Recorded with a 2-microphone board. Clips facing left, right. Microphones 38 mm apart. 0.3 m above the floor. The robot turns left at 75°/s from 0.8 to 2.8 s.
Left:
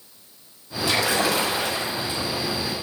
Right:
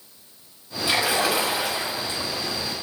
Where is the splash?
110° right, 1.2 m; by 2.3 s 145° left, 1.2 m.